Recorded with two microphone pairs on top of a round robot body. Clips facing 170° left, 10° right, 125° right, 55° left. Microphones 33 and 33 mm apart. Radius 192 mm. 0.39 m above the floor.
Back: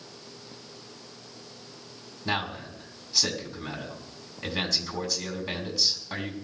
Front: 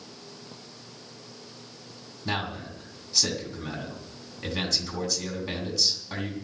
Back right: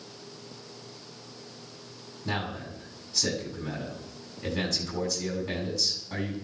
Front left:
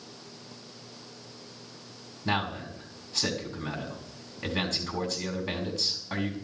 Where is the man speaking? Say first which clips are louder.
Back 1 dB, front left 3 dB; 90° left, 6.5 m.